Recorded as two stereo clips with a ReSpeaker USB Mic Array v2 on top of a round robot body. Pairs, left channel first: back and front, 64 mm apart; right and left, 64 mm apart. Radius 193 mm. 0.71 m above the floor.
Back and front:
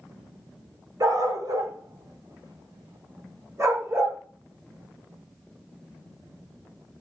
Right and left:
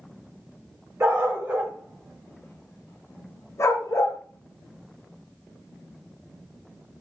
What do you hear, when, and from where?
1.0 s a dog barking: 35° left, 1.0 m; by 4.2 s 55° right, 1.3 m